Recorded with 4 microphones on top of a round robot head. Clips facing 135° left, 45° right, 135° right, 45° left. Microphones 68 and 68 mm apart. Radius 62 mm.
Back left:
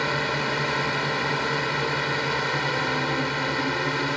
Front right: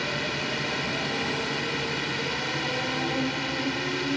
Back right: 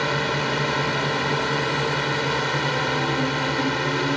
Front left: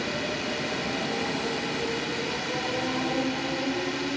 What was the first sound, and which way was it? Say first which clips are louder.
A drone: back left 5 dB, back right 7 dB; 170° right.